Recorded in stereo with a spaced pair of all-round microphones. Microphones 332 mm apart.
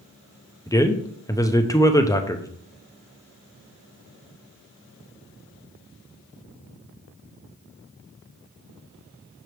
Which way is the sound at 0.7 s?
10° left (ahead or behind).